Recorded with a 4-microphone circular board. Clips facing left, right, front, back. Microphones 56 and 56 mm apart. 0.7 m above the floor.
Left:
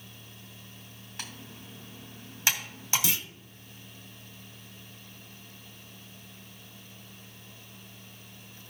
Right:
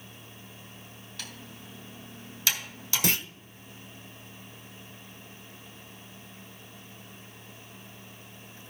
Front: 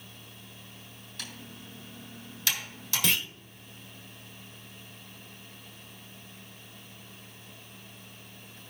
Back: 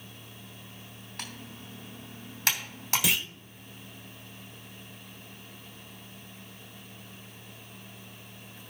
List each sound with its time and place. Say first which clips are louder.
1.2 s typing on a keyboard: left 1 dB, back 1 dB; 155° left, 3 m
3.0 s a clunk: right 4 dB, front 1 dB; 95° right, 0.5 m